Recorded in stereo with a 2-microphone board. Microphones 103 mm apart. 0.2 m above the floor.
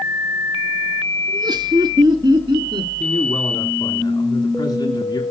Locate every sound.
1.3 s laughter: 40° right (ahead or behind), 1.9 m; by 2.9 s 50° right (ahead or behind), 2.5 m
3.0 s a man speaking: 45° left (ahead or behind), 2 m